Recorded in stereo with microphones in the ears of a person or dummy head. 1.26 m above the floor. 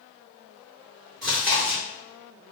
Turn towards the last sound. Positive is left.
turn(degrees=0)  # may be behind; listen again after turning